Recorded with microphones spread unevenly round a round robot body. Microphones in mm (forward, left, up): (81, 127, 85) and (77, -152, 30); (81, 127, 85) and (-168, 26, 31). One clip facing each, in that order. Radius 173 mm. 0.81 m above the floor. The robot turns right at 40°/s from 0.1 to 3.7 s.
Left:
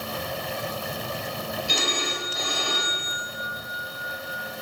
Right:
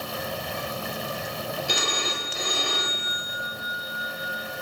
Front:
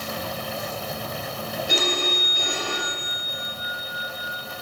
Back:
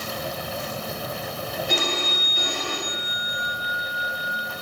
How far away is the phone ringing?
About 2.5 m.